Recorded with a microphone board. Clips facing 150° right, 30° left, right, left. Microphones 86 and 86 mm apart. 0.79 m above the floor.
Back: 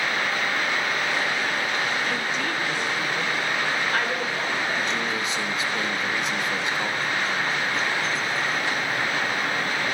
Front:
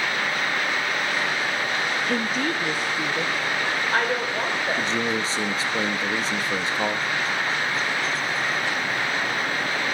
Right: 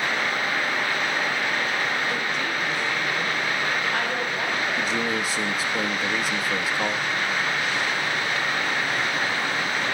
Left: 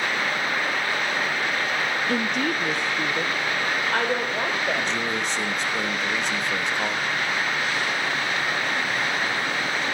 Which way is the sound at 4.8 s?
10° right.